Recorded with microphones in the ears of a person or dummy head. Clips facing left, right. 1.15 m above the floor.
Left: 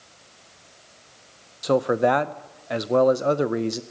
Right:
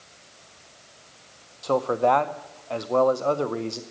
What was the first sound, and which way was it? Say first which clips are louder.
A man speaking: left 2 dB; 20° left (ahead or behind).